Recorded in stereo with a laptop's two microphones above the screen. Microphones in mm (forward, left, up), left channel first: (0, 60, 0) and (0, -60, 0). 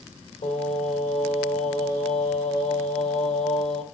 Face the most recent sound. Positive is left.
turn(degrees=70)  # may be behind; listen again after turning